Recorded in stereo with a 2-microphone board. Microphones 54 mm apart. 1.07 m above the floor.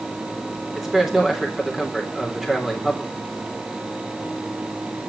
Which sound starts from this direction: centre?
A man speaking, at 0.8 s.